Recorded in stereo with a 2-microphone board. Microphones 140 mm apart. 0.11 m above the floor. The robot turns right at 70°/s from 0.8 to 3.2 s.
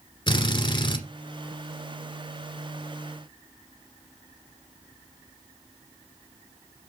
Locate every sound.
0.3 s a drill: 35° left (ahead or behind), 1.9 m; by 1.0 s 30° left (ahead or behind), 1.9 m